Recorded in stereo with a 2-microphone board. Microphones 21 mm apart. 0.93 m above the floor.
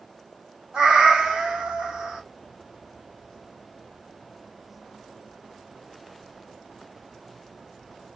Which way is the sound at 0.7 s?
65° right (ahead or behind).